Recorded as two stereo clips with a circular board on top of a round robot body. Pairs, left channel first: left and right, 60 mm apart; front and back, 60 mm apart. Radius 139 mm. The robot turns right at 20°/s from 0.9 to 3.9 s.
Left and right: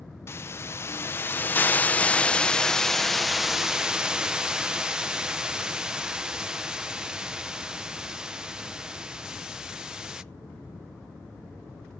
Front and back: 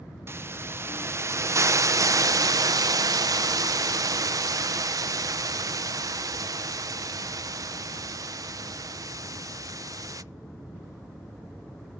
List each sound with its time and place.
0.3 s a hiss: 135° left, 0.7 m; by 10.2 s 165° right, 0.7 m